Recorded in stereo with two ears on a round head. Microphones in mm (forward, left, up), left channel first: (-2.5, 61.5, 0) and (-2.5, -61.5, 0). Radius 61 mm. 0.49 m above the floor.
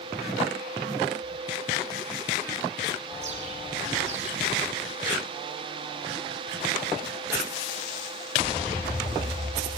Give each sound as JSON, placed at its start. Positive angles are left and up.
{"t": 3.1, "sound": "a bird", "side_deg": -50, "distance_m": 5.5}